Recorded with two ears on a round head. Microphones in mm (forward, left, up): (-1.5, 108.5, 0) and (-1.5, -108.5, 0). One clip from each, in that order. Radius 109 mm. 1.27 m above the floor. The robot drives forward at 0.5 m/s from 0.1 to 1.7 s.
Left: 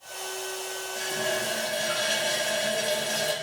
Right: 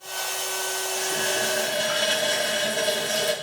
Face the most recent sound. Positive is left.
turn(degrees=-35)  # may be behind; listen again after turning